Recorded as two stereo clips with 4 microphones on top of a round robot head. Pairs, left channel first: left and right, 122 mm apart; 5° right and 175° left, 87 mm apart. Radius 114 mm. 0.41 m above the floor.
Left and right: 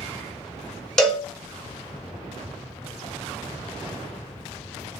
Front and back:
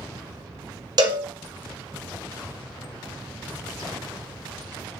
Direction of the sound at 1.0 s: 175° left.